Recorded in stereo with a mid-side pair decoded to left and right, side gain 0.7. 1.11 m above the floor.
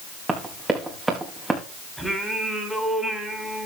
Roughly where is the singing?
Ahead.